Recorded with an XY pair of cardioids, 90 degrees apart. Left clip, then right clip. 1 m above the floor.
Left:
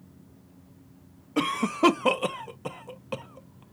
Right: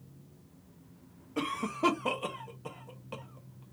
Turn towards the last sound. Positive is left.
turn(degrees=60)